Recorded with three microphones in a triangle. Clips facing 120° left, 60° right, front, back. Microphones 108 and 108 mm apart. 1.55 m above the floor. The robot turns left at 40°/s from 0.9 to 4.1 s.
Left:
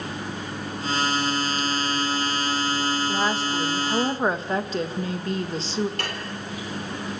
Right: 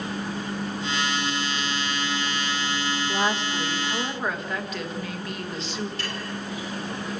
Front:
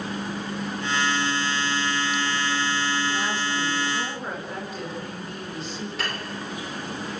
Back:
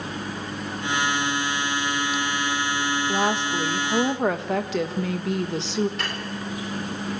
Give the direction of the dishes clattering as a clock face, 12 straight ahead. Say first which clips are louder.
Left 1 dB, even; 9 o'clock.